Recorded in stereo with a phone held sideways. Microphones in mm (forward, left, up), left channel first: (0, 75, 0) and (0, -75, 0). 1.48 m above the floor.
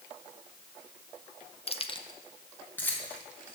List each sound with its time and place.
1.7 s keys jangling: 40° left (ahead or behind), 0.5 m; by 3.5 s 10° left (ahead or behind), 2.5 m